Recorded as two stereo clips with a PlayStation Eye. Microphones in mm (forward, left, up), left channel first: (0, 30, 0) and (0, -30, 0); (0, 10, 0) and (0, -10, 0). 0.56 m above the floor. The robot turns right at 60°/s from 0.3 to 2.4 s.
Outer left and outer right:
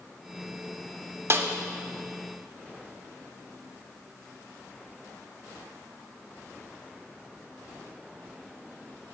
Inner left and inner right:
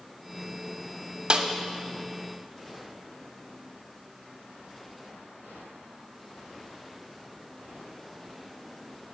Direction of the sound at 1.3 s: 45° right (ahead or behind).